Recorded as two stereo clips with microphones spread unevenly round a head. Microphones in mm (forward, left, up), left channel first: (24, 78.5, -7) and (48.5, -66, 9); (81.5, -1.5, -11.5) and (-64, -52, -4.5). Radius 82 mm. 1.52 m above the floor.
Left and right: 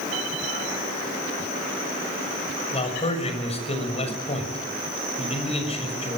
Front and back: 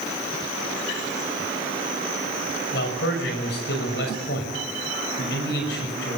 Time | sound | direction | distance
2.7 | a man speaking | 50° left | 6.5 m